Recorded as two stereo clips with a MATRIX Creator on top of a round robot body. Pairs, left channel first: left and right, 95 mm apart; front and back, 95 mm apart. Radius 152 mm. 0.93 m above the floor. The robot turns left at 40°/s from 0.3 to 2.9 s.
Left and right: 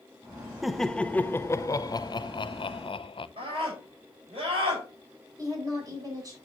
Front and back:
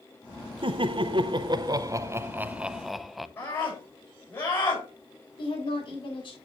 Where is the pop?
I don't hear a pop.